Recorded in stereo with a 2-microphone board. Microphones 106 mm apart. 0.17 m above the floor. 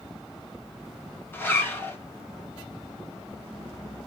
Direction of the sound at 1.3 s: 20° left (ahead or behind).